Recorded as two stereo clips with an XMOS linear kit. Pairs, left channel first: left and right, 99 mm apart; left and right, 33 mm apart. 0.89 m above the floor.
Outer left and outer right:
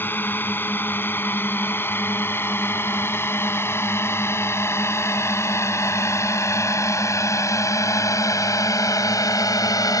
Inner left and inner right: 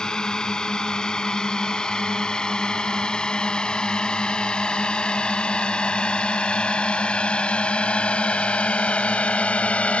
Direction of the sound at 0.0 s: 20° left (ahead or behind).